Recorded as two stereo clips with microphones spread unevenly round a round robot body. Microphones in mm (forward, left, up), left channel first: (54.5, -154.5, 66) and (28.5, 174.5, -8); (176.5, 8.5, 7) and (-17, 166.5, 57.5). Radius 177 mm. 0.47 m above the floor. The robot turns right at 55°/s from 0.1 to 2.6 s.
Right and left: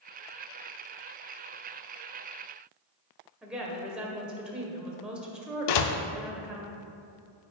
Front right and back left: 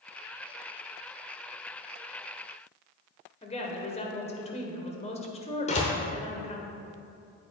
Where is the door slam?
95° right, 0.7 m.